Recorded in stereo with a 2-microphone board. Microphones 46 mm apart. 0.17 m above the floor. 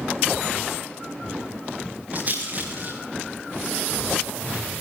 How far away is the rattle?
About 8.5 m.